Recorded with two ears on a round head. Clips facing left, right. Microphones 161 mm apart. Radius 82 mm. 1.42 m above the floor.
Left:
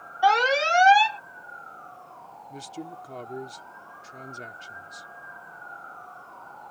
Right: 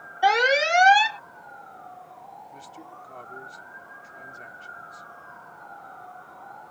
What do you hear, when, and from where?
0.2 s an alarm: 20° right (ahead or behind)
2.5 s a man speaking: 45° left (ahead or behind)